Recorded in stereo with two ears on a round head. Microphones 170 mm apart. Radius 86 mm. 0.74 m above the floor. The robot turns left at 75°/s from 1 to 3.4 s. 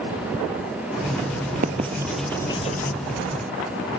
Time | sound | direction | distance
1.6 | writing | 40° right (ahead or behind) | ?